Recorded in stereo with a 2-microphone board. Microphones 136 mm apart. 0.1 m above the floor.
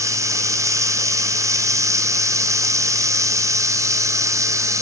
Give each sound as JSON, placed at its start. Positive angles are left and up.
{"t": 0.0, "sound": "running water", "side_deg": -25, "distance_m": 0.8}